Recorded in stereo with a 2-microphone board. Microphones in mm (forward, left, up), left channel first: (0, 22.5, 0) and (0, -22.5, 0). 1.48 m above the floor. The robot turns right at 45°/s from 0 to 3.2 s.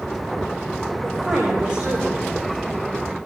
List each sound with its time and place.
1.0 s a woman speaking: 165° left, 4 m; by 2.5 s 125° right, 4 m